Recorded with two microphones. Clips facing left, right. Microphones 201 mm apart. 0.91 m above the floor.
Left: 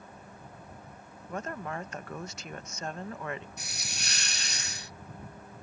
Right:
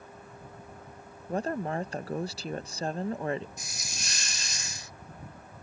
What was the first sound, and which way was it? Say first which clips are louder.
A woman speaking: right 6 dB; 30° right (ahead or behind).